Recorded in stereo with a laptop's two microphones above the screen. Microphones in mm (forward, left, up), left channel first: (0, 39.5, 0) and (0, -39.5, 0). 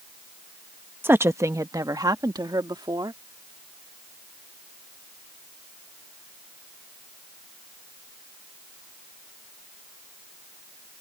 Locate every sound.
1.0 s a woman speaking: 25° right (ahead or behind); by 3.2 s 70° right (ahead or behind)